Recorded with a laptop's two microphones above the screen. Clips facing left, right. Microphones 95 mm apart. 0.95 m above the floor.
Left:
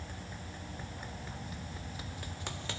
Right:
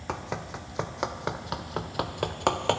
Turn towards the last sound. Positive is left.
turn(degrees=-55)  # may be behind; listen again after turning